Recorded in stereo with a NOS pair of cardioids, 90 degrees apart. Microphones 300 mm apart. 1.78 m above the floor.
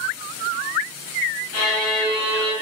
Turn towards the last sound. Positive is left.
turn(degrees=55)